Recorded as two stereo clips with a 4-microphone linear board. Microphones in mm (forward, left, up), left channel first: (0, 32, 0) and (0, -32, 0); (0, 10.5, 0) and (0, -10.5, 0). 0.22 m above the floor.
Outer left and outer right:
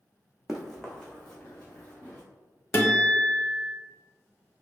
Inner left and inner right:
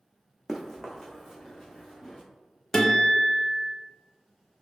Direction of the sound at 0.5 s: 5° right (ahead or behind).